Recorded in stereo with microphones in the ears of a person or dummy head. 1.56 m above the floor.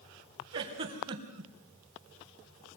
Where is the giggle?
35° right (ahead or behind), 3 m.